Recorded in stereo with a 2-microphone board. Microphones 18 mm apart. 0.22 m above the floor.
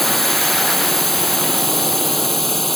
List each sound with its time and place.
0.0 s a drone: 10° left (ahead or behind)